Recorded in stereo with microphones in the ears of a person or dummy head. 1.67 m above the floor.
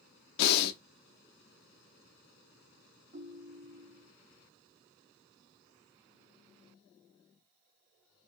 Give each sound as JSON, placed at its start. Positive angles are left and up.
{"t": 0.4, "sound": "breathing", "side_deg": 65, "distance_m": 0.5}
{"t": 3.1, "sound": "a ringtone", "side_deg": -35, "distance_m": 0.7}